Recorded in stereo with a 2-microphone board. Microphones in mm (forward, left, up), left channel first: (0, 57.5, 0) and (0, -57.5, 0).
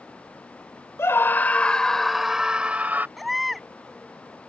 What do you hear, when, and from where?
1.0 s a scream: 25° left (ahead or behind); by 3.1 s 15° right (ahead or behind)
3.2 s a baby crying: centre (ahead or behind)